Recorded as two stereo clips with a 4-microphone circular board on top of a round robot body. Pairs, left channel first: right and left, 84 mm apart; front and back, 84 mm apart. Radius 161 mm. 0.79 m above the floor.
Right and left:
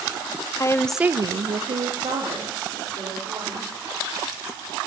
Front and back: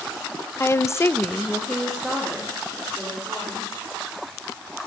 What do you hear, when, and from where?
0.6 s a woman speaking: 50° right, 0.8 m; by 3.7 s 100° left, 4 m